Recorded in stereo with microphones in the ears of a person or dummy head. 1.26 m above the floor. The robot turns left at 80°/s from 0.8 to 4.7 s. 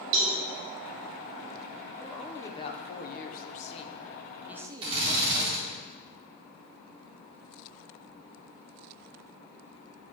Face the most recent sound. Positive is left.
turn(degrees=-35)  # may be behind; listen again after turning